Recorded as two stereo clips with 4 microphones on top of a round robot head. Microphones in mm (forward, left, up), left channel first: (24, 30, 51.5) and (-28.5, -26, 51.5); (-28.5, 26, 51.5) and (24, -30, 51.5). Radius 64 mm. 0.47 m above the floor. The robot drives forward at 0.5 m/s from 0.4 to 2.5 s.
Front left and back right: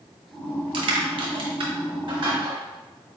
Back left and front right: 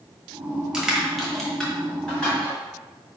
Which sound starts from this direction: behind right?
Crushing, at 0.7 s.